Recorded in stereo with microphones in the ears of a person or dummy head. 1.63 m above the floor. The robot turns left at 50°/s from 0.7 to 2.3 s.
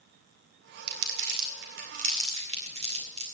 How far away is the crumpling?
About 2 m.